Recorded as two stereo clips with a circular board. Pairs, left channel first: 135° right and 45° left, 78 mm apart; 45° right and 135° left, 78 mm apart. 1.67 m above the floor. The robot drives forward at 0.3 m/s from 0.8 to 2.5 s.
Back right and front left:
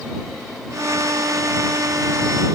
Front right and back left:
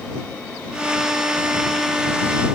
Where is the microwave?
I don't hear a microwave.